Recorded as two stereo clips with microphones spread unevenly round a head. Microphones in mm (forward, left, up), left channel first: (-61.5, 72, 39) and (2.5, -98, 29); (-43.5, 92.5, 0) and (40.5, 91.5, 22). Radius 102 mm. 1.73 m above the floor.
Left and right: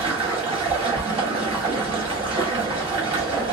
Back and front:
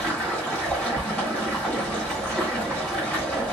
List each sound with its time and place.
0.0 s running water: 85° right, 1.1 m